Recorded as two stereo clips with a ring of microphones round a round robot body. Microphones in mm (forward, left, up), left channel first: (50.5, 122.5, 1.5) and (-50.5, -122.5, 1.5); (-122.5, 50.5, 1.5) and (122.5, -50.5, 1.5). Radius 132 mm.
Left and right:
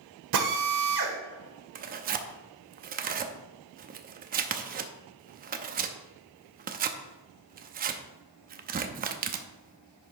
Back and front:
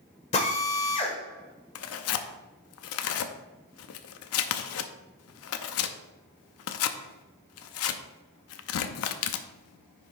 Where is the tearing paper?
170° right, 0.6 m.